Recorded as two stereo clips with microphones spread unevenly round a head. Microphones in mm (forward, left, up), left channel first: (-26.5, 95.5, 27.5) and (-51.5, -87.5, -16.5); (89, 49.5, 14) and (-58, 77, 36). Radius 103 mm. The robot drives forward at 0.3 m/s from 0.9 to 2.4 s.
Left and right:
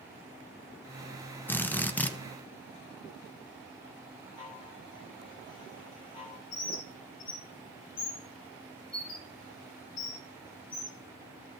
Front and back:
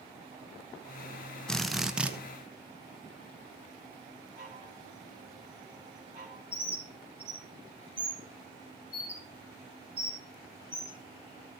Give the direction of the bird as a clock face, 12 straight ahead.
9 o'clock.